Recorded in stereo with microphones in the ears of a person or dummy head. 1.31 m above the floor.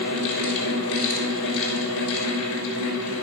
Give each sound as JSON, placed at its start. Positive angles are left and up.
{"t": 0.0, "sound": "a fan", "side_deg": 75, "distance_m": 6.0}